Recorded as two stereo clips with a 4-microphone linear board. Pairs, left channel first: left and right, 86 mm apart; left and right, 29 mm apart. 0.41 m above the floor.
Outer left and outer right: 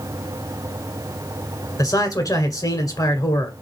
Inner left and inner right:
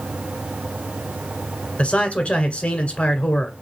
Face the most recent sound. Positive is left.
turn(degrees=45)  # may be behind; listen again after turning